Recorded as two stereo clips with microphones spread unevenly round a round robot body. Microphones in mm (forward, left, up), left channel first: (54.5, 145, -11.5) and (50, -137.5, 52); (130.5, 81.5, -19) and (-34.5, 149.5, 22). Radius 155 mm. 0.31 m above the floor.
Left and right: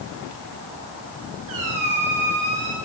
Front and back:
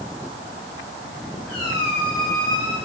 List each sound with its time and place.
1.5 s a squeak: 75° right, 4 m